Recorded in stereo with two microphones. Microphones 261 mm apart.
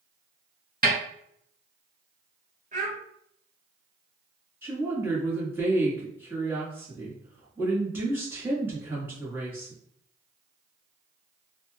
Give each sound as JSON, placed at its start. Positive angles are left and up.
{"t": 0.8, "sound": "a snare drum", "side_deg": -35, "distance_m": 1.4}
{"t": 2.7, "sound": "a child speaking", "side_deg": -30, "distance_m": 1.7}
{"t": 4.6, "sound": "a woman speaking", "side_deg": -10, "distance_m": 1.4}